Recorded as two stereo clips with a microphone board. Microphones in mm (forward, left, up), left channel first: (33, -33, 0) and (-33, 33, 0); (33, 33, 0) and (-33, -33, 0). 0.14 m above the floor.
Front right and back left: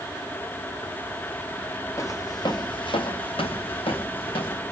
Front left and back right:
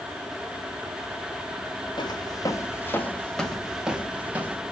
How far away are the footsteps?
About 2.5 m.